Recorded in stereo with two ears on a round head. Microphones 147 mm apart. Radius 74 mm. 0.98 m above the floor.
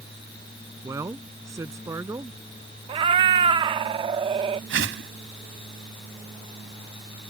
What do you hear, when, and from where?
0.8 s a man speaking: 20° right (ahead or behind)
2.9 s a cat meowing: 30° right (ahead or behind)
4.7 s a whoosh: 80° right